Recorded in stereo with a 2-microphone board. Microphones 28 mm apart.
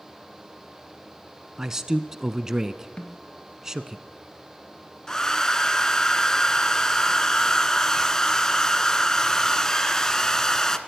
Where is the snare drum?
45° left (ahead or behind), 2.5 m.